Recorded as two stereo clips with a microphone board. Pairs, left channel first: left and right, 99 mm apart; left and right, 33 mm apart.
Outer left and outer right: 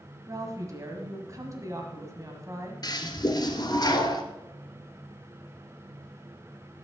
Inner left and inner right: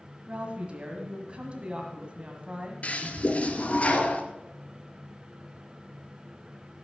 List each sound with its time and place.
0.3 s a woman speaking: 30° right (ahead or behind), 1.7 m
2.8 s a toilet flushing: 45° left (ahead or behind), 1.4 m